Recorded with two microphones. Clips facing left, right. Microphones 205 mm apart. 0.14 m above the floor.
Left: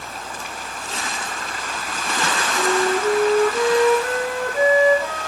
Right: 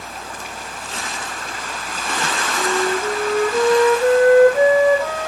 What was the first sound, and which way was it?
A flute, 65° right (ahead or behind).